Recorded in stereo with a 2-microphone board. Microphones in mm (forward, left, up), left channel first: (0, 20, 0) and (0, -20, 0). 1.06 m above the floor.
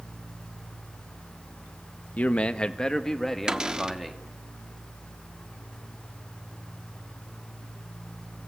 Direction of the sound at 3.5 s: 20° right (ahead or behind).